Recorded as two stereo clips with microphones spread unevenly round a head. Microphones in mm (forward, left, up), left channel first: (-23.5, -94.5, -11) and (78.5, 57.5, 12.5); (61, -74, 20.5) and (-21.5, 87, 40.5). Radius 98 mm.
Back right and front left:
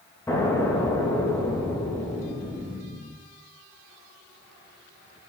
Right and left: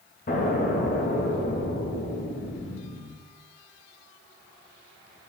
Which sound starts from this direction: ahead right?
An explosion, at 0.3 s.